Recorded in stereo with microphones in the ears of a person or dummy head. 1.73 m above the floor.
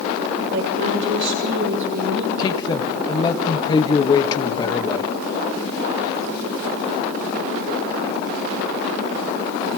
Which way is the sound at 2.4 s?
25° left (ahead or behind).